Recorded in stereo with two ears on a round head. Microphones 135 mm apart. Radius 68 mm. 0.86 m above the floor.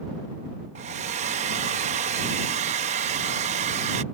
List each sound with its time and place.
0.8 s a hair dryer: 45° right (ahead or behind)